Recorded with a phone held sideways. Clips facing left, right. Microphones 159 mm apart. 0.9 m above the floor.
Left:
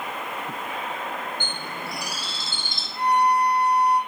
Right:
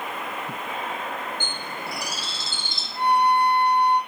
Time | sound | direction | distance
1.4 | a bird | 55° left (ahead or behind) | 1.3 m
3.0 | a violin | 30° right (ahead or behind) | 0.6 m